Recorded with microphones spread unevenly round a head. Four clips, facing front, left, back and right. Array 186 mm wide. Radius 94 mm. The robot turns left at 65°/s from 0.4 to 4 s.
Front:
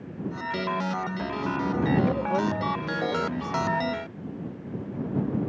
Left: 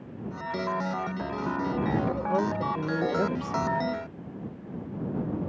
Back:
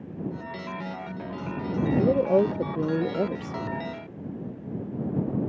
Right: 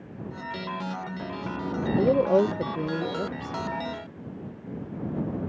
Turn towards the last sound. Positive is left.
turn(degrees=115)